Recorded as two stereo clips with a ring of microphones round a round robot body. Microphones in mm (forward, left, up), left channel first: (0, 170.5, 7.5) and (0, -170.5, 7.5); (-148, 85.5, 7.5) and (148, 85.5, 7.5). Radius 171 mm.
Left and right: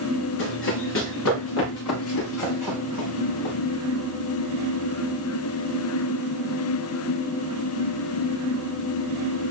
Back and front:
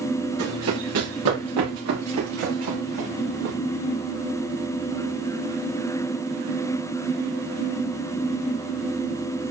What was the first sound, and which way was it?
Running footsteps, 35° left.